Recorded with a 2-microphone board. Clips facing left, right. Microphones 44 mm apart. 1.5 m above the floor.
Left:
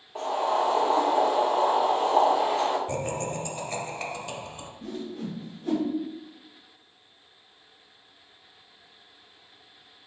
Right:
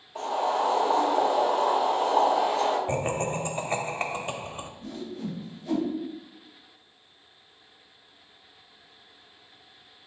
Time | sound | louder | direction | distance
0.1 | boiling | left 1 dB | 35° left (ahead or behind) | 1.4 m
2.9 | laughter | right 3 dB | 35° right (ahead or behind) | 0.6 m
4.8 | a whoosh | left 3 dB | 65° left (ahead or behind) | 1.4 m